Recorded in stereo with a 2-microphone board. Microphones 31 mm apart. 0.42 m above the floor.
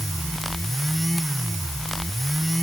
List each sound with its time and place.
Only background noise.